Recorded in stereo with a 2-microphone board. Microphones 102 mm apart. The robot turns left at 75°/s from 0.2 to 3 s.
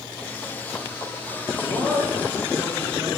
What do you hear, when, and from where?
1.6 s a man speaking: 50° left, 2.5 m; by 3.1 s 50° right, 2.5 m